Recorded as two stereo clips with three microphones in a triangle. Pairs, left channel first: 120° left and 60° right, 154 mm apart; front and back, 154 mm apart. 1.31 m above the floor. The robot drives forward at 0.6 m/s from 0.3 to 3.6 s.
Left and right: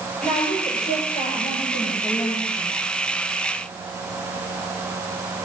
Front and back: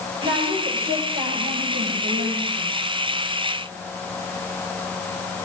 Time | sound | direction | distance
0.2 | a woman speaking | 160° left | 8 m